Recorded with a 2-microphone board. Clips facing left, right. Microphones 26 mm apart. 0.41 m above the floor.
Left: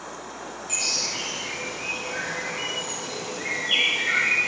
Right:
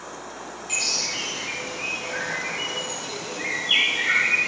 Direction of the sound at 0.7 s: 15° right (ahead or behind).